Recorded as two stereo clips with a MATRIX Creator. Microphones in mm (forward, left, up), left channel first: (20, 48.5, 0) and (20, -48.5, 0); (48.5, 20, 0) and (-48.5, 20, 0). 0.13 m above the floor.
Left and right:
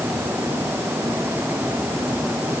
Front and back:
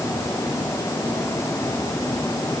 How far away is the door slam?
No door slam in this recording.